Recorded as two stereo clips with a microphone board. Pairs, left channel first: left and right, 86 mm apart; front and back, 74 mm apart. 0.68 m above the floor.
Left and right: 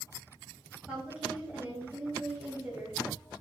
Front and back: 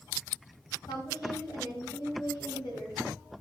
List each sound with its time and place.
0.9 s a woman speaking: 15° right, 4 m